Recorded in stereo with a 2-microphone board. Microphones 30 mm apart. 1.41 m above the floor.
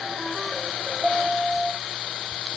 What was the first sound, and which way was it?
Only background noise.